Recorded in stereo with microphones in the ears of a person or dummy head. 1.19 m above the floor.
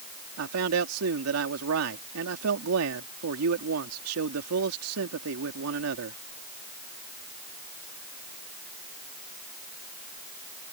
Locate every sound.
0.4 s a man speaking: 80° right